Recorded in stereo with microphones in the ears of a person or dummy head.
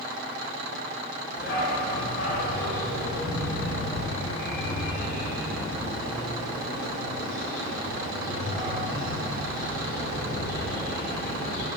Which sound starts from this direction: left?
A dog barking, at 1.4 s.